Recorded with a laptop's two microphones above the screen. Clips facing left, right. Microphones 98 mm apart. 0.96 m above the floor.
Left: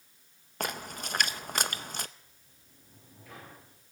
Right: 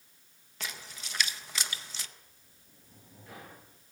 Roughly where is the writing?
No writing in this recording.